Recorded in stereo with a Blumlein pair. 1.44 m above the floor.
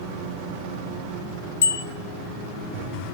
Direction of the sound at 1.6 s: 65° left.